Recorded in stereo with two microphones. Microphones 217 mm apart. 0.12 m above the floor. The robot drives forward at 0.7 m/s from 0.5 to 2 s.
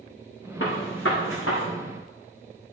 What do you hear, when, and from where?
0.6 s a gunshot: 60° left (ahead or behind), 4.5 m; by 1.6 s 70° left (ahead or behind), 4.5 m